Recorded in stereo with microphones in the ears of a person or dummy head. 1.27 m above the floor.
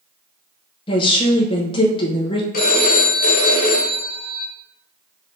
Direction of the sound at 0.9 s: 25° left (ahead or behind).